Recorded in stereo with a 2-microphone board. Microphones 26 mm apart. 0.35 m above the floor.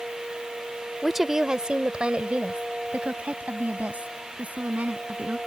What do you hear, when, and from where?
1.0 s a woman speaking: 5° right (ahead or behind); by 5.4 s 70° right (ahead or behind)